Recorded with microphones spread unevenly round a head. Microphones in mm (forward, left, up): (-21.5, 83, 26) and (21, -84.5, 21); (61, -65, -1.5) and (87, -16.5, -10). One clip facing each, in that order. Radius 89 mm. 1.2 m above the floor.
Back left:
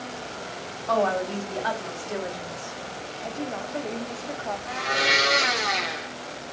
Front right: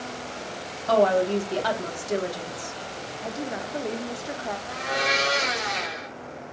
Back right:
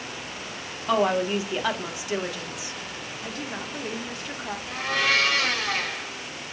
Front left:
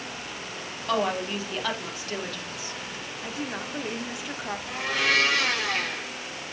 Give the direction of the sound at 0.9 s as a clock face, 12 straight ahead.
1 o'clock.